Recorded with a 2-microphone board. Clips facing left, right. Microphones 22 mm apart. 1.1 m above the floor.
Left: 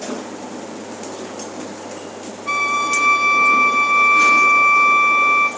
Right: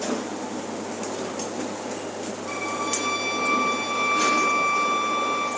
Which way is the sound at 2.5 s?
85° left.